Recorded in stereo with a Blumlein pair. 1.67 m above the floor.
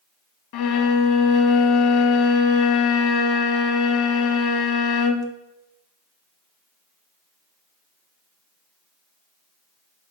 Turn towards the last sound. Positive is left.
turn(degrees=45)